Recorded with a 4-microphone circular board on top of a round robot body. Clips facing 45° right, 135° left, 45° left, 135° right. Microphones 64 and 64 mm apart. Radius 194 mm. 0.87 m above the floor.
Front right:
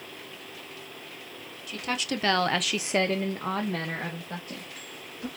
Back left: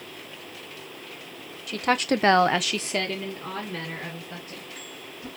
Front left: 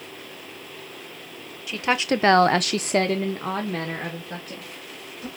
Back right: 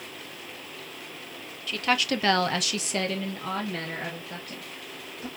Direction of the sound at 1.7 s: 120° left.